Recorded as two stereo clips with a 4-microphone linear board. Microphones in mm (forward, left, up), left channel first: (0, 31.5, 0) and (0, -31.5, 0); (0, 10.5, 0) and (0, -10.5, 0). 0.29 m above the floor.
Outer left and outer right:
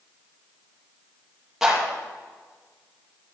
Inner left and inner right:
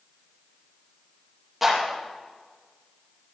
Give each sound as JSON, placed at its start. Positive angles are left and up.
{"t": 1.6, "sound": "a clap", "side_deg": -5, "distance_m": 7.5}